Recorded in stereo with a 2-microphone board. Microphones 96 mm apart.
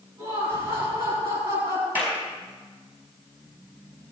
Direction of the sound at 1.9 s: 15° right (ahead or behind).